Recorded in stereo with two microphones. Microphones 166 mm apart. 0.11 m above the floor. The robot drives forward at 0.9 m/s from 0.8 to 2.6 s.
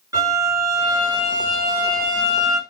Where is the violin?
25° right (ahead or behind), 2.0 m.